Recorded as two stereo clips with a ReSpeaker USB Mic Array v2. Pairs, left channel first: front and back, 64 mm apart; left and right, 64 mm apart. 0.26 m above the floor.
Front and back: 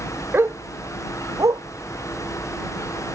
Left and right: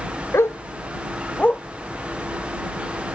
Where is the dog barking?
130° left; by 1.6 s 160° left.